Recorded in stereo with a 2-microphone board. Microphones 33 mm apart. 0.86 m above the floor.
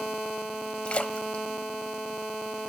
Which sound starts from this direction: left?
A splash, at 0.8 s.